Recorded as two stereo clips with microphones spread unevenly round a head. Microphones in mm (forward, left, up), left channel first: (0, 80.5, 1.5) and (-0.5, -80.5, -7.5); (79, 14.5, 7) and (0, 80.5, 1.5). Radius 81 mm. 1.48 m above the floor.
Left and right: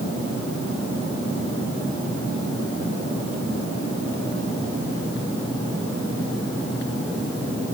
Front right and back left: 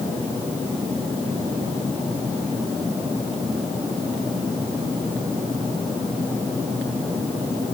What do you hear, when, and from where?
Only background noise.